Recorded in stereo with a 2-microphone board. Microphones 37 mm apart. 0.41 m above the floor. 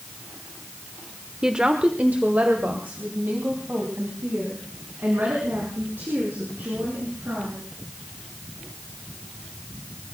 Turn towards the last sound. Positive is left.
turn(degrees=-80)